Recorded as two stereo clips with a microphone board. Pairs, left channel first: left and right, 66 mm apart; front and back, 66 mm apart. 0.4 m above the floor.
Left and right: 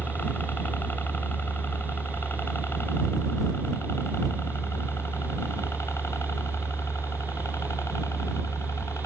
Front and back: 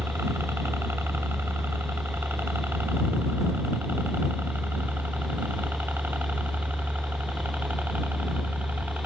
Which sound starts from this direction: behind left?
A helicopter, at 0.0 s.